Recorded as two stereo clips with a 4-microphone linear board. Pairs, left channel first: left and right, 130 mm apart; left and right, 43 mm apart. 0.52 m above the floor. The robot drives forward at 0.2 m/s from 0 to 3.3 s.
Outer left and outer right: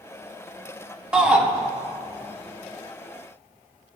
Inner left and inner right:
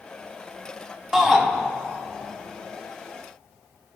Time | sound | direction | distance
1.1 | a shout | 10° right (ahead or behind) | 0.7 m